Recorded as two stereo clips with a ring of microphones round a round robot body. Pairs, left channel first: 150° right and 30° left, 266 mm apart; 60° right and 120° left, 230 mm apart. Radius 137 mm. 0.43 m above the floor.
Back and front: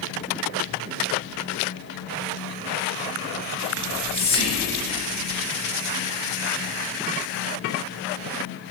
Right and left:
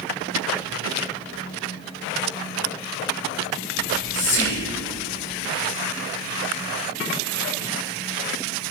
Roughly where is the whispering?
Right.